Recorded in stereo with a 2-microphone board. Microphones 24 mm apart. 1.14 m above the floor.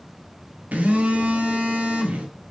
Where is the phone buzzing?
80° right, 1.7 m.